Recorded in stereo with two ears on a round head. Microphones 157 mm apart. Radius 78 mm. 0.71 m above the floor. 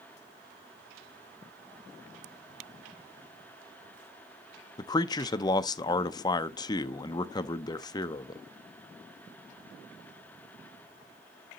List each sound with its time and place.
4.8 s a man speaking: 25° left (ahead or behind), 0.5 m